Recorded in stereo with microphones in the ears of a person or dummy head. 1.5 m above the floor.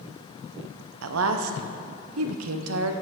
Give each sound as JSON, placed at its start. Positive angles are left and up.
{"t": 1.0, "sound": "a woman speaking", "side_deg": -85, "distance_m": 0.7}